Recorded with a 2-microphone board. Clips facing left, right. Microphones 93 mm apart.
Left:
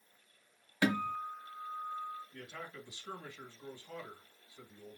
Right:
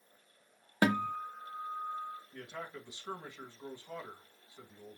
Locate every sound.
0.8 s a guitar: 45° right (ahead or behind), 0.7 m
2.3 s a man speaking: 25° right (ahead or behind), 1.5 m